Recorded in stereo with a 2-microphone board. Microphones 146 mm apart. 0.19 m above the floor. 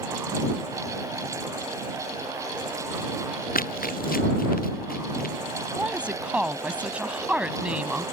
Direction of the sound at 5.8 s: 10° right (ahead or behind).